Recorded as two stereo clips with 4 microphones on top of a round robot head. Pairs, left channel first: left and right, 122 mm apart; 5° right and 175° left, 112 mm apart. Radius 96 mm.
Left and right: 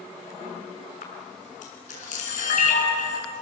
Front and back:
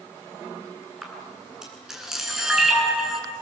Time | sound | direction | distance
1.0 | a camera shutter | 90° left | 7.5 m